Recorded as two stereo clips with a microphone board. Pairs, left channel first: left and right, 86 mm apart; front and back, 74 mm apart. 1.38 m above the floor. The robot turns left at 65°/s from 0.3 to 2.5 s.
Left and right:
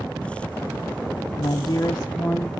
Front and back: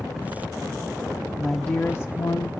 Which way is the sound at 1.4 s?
80° left.